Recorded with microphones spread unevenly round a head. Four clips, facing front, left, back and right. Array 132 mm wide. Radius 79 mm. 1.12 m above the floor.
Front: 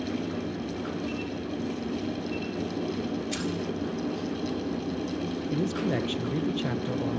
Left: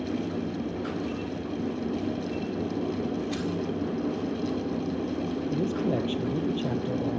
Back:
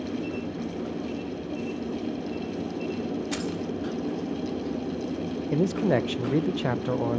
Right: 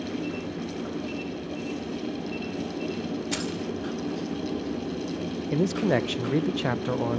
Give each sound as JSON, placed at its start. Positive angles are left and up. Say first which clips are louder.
{"t": 3.3, "sound": "keys jangling", "louder": "left 1 dB, back 1 dB", "azimuth_deg": -115, "distance_m": 2.5}
{"t": 5.5, "sound": "a man speaking", "louder": "right 5 dB, back 6 dB", "azimuth_deg": -165, "distance_m": 0.8}